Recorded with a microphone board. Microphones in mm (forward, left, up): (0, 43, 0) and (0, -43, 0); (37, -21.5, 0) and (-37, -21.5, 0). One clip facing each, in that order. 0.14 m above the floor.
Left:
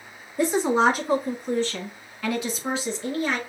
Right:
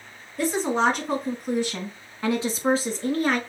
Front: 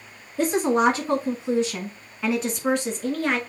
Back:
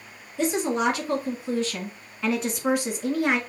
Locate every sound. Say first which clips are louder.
0.4 s a woman speaking: left 2 dB, front 4 dB; 25° left, 1.5 m; by 3.4 s 110° right, 1.7 m